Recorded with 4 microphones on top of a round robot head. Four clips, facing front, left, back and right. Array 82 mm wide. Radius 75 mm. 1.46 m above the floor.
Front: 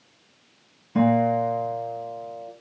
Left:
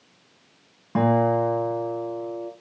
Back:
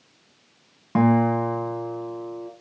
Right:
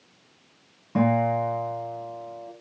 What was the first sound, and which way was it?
A guitar, 155° left.